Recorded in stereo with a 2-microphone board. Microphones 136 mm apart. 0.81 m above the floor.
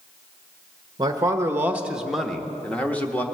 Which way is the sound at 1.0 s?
30° right (ahead or behind).